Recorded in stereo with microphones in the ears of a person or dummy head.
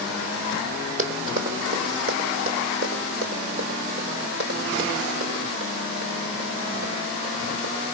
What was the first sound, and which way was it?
Running footsteps, 45° right (ahead or behind).